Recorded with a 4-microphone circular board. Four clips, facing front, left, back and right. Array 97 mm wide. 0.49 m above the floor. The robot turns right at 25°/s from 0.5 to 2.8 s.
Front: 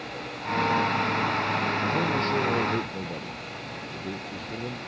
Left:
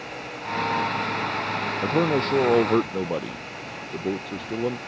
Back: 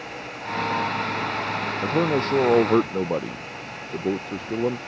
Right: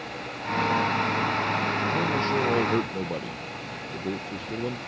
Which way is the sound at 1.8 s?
135° left.